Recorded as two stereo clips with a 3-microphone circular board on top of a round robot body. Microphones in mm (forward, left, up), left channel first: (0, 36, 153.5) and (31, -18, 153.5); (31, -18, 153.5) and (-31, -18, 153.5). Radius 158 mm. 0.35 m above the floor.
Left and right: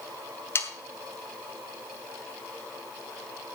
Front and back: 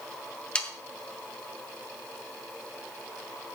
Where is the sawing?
75° left, 2.5 m.